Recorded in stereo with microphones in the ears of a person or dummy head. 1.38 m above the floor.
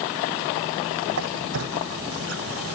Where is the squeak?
70° right (ahead or behind).